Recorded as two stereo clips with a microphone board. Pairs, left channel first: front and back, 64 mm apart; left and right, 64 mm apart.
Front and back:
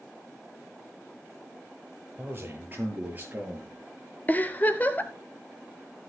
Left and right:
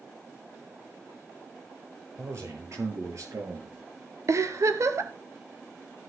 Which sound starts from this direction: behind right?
A man speaking, at 2.2 s.